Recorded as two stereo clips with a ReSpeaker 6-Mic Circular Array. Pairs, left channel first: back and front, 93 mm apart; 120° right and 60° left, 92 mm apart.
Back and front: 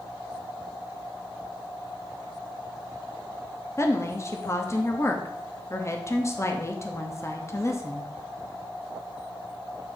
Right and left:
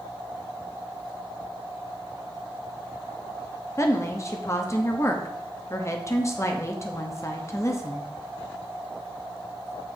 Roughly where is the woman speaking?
Behind right.